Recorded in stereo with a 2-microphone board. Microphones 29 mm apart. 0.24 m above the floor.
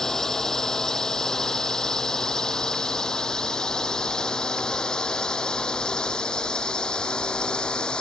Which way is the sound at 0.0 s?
15° left (ahead or behind).